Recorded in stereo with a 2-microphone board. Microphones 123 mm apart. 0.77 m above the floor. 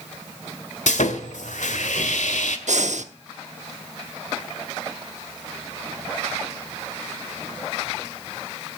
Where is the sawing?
85° left, 1.7 m.